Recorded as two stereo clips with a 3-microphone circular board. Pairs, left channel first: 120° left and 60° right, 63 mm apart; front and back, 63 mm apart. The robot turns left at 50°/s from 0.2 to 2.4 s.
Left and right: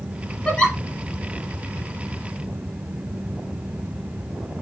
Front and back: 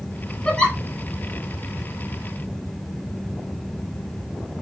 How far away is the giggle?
About 0.9 m.